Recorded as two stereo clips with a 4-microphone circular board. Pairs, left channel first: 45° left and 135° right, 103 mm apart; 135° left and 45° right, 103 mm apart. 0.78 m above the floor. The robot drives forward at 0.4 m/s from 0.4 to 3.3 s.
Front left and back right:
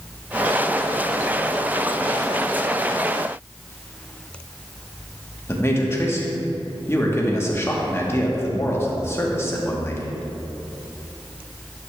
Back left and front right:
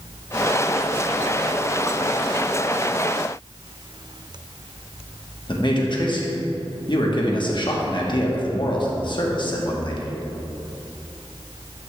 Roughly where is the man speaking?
Left.